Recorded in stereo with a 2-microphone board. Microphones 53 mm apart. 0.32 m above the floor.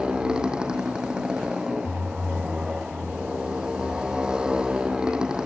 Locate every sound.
0.0 s a motorcycle: 15° right (ahead or behind)